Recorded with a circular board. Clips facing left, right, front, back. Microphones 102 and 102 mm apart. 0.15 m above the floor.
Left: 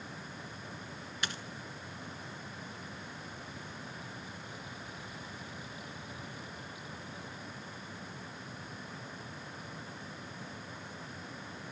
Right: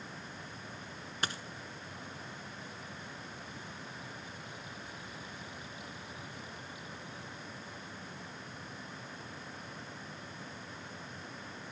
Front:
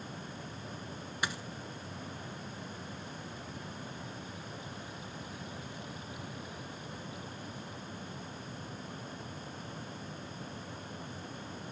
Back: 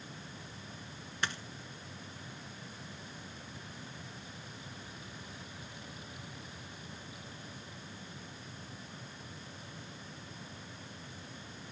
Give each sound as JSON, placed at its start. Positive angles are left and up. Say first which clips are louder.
{"t": 1.2, "sound": "a dropped coin", "louder": "right 2 dB, front 1 dB", "azimuth_deg": -75, "distance_m": 0.9}